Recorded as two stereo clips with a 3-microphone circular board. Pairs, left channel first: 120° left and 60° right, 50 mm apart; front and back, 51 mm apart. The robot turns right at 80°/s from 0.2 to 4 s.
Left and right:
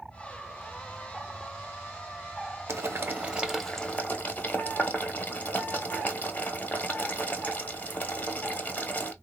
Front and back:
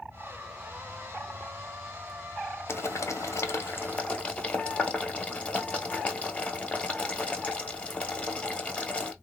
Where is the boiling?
40° right, 1.2 m; by 9.1 s 65° left, 1.2 m.